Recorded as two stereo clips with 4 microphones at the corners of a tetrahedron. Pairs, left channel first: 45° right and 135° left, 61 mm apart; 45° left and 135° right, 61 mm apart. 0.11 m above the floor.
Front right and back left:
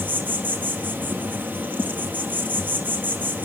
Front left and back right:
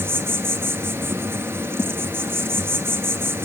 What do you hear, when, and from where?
0.0 s an insect: 175° right, 1.2 m